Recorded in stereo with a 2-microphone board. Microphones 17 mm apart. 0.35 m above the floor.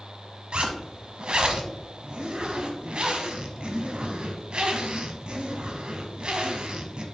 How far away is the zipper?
About 0.9 m.